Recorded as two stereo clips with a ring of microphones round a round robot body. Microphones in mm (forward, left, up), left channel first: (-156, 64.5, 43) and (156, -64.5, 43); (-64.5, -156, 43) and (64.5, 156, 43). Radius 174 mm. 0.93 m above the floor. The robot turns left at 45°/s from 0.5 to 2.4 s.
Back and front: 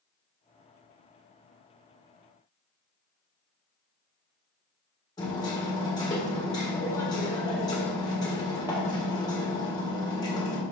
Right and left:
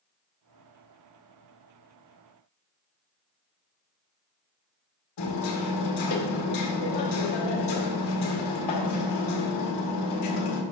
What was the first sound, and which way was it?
Hammering, 125° right.